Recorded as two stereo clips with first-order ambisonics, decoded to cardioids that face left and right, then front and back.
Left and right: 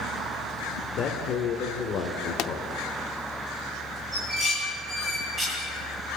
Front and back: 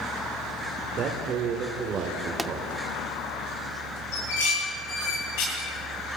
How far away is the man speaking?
About 1.7 m.